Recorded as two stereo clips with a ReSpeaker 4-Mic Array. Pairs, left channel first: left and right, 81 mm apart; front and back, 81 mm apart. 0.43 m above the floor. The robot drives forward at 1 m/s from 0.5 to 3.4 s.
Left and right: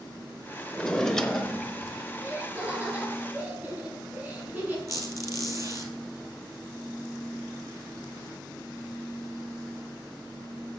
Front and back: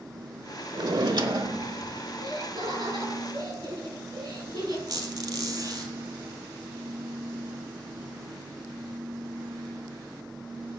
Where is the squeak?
140° right, 2 m.